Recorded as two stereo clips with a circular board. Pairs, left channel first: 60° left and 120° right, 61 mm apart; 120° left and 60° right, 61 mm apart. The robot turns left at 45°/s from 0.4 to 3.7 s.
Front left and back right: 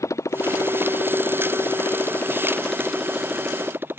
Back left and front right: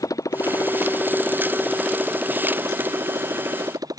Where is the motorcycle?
95° left; by 4.0 s 65° right.